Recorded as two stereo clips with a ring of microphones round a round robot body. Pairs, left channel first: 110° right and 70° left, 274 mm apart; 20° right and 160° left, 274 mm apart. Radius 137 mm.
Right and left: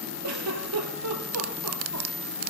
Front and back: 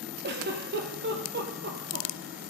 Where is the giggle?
100° left, 2.5 m.